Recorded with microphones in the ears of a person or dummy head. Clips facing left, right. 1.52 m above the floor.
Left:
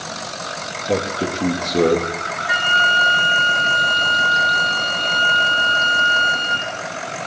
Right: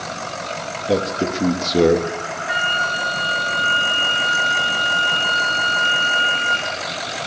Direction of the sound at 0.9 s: 15° right (ahead or behind).